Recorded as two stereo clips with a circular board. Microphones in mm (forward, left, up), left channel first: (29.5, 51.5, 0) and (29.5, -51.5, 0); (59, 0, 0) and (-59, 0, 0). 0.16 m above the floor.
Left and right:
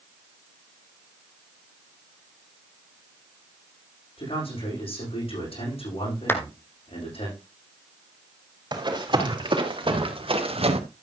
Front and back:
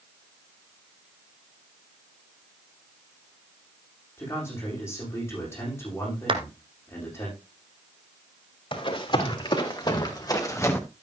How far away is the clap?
About 1.3 m.